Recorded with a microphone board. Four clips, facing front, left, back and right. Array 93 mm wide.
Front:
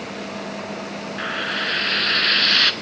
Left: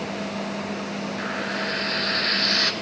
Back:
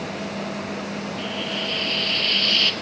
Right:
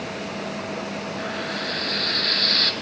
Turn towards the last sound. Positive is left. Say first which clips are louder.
# left 2 dB, front 3 dB
turn(degrees=15)